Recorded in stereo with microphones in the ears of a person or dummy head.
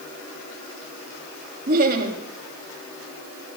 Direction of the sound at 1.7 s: 45° right (ahead or behind).